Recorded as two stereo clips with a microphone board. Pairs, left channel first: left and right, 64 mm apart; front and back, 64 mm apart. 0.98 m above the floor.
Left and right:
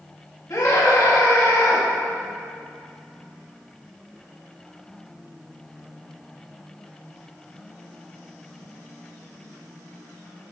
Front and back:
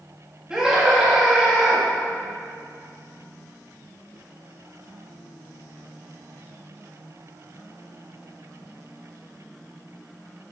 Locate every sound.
0.5 s a scream: 105° left, 1.8 m